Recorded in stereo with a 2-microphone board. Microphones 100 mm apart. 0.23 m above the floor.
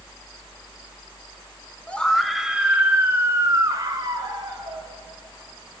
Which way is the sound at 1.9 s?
10° left (ahead or behind).